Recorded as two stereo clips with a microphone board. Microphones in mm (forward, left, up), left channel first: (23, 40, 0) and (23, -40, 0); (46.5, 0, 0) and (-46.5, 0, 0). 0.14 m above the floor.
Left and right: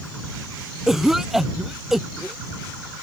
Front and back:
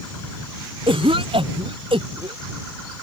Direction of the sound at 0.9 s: 175° right.